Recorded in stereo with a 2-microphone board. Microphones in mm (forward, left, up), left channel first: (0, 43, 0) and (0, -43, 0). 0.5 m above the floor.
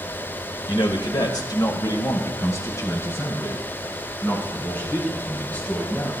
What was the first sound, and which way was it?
A man speaking, 60° left (ahead or behind).